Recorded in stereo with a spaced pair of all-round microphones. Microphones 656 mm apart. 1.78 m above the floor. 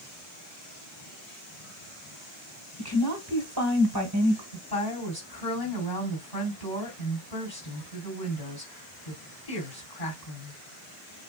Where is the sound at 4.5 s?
60° left (ahead or behind), 4 m.